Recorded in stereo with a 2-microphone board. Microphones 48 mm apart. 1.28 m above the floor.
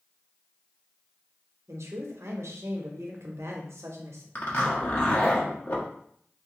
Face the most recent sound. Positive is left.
turn(degrees=55)  # may be behind; listen again after turning